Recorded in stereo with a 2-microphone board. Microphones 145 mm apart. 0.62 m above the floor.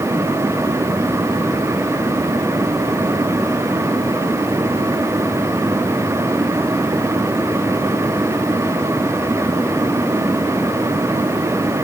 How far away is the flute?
No flute in this recording.